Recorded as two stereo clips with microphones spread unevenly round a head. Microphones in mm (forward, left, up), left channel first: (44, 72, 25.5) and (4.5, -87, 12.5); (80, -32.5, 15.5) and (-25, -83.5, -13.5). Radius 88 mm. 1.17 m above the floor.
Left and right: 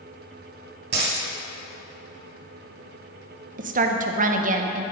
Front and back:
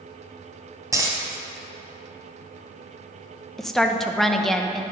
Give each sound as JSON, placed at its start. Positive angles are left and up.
{"t": 0.9, "sound": "a dropped coin", "azimuth_deg": -85, "distance_m": 2.5}
{"t": 3.6, "sound": "a woman speaking", "azimuth_deg": -65, "distance_m": 0.7}